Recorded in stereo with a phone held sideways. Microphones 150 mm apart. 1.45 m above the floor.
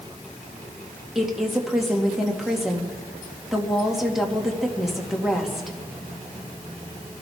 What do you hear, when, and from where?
1.1 s a woman speaking: centre (ahead or behind), 2 m